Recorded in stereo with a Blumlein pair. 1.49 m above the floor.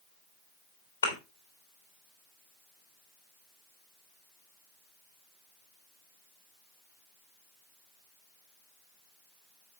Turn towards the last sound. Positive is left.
turn(degrees=70)